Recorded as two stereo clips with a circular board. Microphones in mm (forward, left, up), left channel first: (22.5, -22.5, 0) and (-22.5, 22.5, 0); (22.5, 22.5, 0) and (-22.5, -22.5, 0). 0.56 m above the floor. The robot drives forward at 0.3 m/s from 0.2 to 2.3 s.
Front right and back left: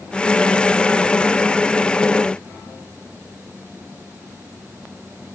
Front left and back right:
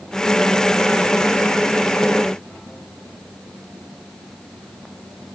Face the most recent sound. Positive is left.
No sound to turn to.